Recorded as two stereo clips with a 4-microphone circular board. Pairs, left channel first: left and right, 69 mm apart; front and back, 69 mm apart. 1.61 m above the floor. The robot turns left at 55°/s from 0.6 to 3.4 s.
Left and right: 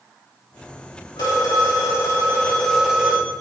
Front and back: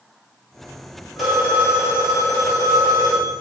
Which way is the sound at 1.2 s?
95° left.